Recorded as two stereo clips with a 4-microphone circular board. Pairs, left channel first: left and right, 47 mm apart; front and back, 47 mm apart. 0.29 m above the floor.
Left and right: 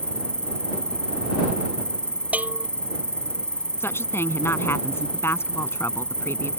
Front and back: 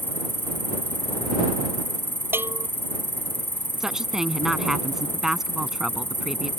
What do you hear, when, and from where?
0.0 s an insect: 25° left
2.3 s a bell: 145° right
3.8 s a woman speaking: 105° left